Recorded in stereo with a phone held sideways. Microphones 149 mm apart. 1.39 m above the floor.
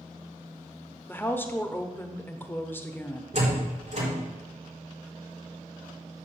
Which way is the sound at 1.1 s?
15° left (ahead or behind).